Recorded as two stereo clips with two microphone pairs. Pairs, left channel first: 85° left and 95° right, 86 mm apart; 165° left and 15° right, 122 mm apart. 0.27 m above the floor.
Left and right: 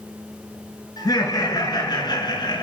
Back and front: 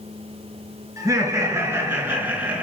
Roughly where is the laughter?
Ahead left.